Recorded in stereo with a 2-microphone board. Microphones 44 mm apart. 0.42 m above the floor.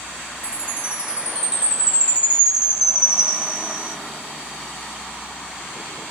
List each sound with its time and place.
0.4 s a chime: 25° right (ahead or behind), 1.3 m